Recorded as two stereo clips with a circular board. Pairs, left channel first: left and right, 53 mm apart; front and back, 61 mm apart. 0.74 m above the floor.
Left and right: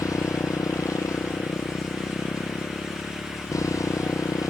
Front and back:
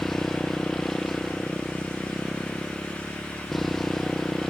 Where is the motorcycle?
85° left.